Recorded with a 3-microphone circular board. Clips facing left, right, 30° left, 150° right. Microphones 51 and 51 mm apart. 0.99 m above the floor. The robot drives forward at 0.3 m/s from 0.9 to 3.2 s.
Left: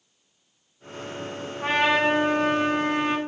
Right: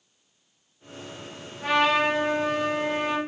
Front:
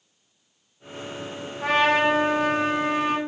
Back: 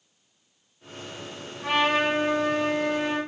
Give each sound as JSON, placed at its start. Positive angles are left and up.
{"t": 1.6, "sound": "a trumpet", "azimuth_deg": 40, "distance_m": 1.0}